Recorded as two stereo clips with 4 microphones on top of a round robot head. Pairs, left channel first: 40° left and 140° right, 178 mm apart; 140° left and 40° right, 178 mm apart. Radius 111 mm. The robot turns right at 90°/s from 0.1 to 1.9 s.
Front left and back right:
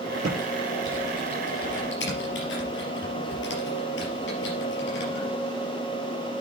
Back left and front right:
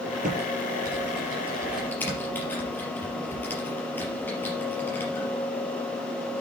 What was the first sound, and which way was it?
Typing on a keyboard, 90° right.